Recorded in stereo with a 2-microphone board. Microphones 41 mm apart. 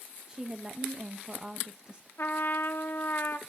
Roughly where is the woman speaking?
Right.